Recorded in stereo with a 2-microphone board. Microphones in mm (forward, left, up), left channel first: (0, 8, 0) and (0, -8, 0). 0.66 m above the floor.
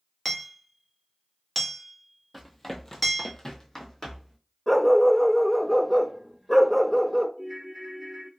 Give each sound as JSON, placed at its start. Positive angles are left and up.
{"t": 0.2, "sound": "hammering", "side_deg": 5, "distance_m": 0.9}
{"t": 2.3, "sound": "running footsteps", "side_deg": 10, "distance_m": 0.9}
{"t": 4.7, "sound": "a dog barking", "side_deg": 5, "distance_m": 0.6}
{"t": 7.4, "sound": "a ringtone", "side_deg": -5, "distance_m": 1.0}